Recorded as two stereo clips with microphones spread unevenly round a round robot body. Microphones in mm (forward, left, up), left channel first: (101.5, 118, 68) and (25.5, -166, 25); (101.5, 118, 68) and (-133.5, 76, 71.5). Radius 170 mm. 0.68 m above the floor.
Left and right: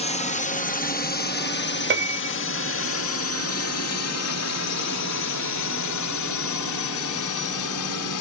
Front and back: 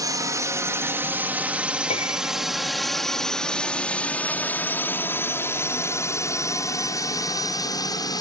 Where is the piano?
60° right.